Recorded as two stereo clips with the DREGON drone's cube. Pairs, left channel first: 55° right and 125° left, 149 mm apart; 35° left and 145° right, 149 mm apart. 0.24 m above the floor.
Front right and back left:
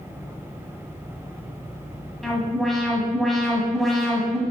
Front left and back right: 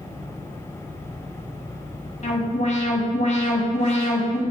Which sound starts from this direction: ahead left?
An alarm, at 2.2 s.